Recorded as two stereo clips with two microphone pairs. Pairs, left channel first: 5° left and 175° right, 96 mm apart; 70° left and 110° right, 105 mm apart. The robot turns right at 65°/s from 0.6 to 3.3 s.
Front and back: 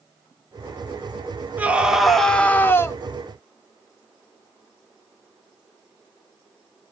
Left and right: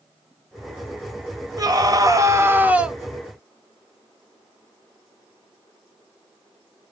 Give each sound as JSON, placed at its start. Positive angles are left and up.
{"t": 1.6, "sound": "a scream", "azimuth_deg": -120, "distance_m": 0.7}